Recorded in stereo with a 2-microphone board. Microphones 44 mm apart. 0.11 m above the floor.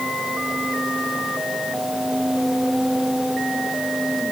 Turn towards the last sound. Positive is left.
No sound to turn to.